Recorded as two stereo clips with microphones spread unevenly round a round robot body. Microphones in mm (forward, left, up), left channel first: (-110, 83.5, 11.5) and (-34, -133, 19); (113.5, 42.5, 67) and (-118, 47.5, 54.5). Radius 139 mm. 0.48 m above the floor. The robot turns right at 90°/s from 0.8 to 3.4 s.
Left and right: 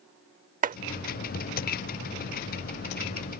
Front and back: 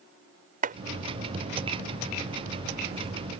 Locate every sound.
0.6 s chopping: 125° right